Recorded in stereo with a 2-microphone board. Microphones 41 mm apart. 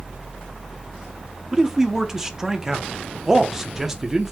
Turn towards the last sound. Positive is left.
turn(degrees=-15)  # may be behind; listen again after turning